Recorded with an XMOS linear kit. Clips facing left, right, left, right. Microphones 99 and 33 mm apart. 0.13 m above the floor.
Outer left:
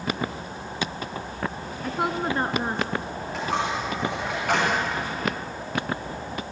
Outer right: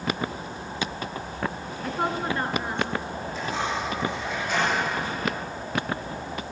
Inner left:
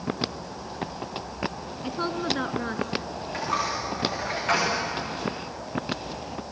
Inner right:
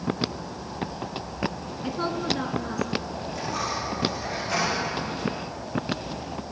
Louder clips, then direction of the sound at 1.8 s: Outer left 1 dB, inner right 1 dB; centre (ahead or behind).